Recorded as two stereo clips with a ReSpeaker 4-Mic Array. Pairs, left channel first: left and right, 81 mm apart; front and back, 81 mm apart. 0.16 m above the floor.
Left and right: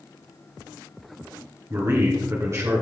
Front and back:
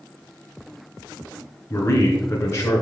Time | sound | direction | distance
1.7 | a man speaking | 45° right | 2.5 m